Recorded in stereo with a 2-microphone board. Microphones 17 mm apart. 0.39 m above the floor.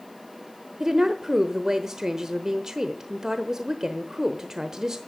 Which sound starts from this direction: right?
A woman speaking, at 0.8 s.